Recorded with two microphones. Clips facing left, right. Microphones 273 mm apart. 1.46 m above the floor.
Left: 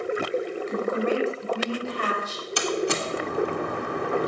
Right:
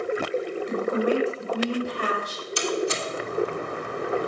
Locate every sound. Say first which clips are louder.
0.7 s a woman speaking: right 2 dB; 40° right (ahead or behind), 7 m
2.6 s a door slam: even; 70° left (ahead or behind), 2.0 m